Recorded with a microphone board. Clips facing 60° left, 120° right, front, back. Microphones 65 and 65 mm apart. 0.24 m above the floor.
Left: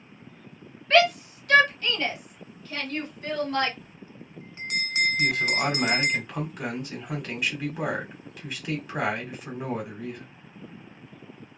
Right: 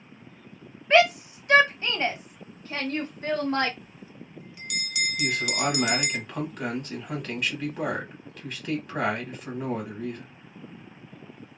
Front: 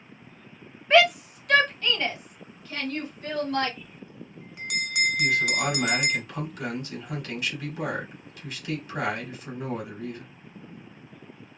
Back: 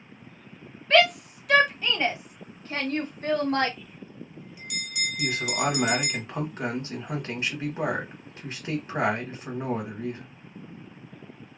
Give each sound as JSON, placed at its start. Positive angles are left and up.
{"t": 0.9, "sound": "a shout", "azimuth_deg": -65, "distance_m": 1.2}
{"t": 3.8, "sound": "a bell", "azimuth_deg": 15, "distance_m": 0.6}
{"t": 5.2, "sound": "a man speaking", "azimuth_deg": 145, "distance_m": 1.9}